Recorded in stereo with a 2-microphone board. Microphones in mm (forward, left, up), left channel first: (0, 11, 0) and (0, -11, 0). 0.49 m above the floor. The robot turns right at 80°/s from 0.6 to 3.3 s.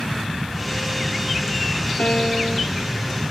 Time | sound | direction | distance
0.0 | an aircraft | 110° right | ?
2.0 | a piano | 100° left | ?